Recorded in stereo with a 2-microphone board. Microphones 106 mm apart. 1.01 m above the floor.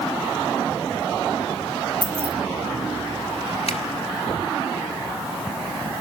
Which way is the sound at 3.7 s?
75° left (ahead or behind).